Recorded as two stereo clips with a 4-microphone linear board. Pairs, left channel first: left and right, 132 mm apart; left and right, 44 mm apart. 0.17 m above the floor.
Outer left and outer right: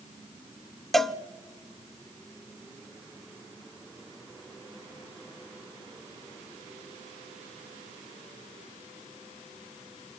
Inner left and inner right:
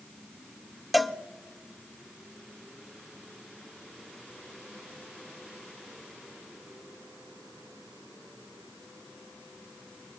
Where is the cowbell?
Centre (ahead or behind), 0.5 m.